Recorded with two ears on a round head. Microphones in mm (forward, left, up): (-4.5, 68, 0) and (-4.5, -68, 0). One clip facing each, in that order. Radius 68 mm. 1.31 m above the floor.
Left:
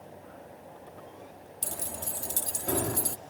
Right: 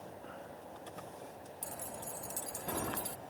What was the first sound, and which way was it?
Keys jangling, 75° left (ahead or behind).